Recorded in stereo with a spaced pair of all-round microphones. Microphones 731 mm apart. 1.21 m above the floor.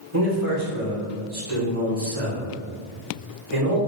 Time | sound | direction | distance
0.1 | a man speaking | 30° right (ahead or behind) | 1.5 m